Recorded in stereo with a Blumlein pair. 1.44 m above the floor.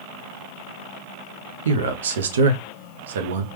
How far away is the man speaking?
About 0.6 m.